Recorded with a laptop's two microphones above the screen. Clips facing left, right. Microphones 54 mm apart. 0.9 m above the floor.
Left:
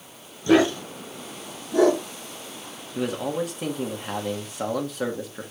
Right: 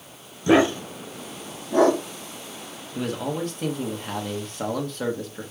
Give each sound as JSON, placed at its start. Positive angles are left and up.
{"t": 0.5, "sound": "a dog barking", "side_deg": -20, "distance_m": 0.9}
{"t": 3.0, "sound": "a man speaking", "side_deg": 5, "distance_m": 1.2}